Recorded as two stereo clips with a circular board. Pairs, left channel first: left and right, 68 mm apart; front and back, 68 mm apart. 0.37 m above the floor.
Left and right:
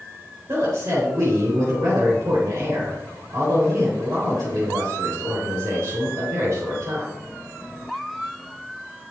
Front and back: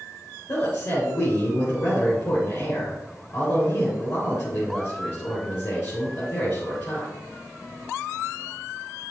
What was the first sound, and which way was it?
A woman speaking, 35° right.